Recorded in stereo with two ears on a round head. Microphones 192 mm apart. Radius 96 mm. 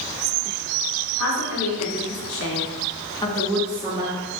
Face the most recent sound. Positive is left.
turn(degrees=-20)  # may be behind; listen again after turning